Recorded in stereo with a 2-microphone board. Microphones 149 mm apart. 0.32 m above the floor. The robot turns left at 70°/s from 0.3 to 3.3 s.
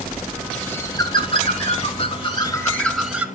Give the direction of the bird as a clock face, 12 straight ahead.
6 o'clock.